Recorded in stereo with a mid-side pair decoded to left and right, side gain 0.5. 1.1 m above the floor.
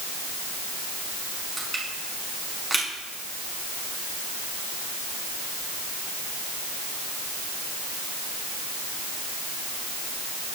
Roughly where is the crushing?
Ahead right.